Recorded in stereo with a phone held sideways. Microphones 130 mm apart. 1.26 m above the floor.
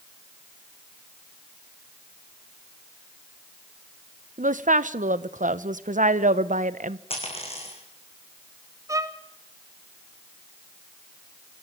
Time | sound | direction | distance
4.4 | a woman speaking | 80° right | 0.7 m
7.1 | a dropped coin | 50° left (ahead or behind) | 4.5 m
8.9 | a violin | 25° right (ahead or behind) | 0.9 m